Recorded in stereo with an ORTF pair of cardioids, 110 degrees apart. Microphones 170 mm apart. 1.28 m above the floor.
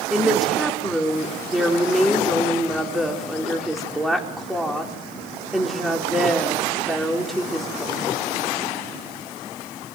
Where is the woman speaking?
Straight ahead, 4.5 m.